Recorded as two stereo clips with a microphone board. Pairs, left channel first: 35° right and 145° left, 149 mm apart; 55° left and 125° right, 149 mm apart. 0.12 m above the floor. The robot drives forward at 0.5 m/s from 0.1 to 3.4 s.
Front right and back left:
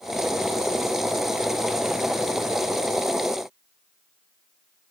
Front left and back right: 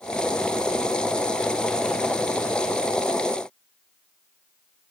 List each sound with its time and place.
Only background noise.